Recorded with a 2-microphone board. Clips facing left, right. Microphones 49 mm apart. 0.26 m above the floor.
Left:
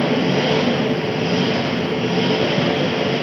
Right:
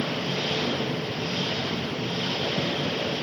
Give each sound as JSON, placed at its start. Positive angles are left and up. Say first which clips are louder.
{"t": 0.0, "sound": "an engine running", "louder": "left 11 dB", "side_deg": 65, "distance_m": 1.3}